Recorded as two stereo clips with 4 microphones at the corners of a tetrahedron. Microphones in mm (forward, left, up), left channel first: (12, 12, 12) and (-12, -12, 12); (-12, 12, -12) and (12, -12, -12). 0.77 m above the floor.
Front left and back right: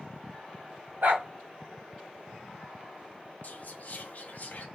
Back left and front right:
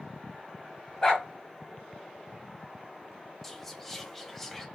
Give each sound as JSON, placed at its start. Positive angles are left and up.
{"t": 1.0, "sound": "a dog barking", "azimuth_deg": -150, "distance_m": 1.3}
{"t": 3.4, "sound": "whispering", "azimuth_deg": 55, "distance_m": 0.9}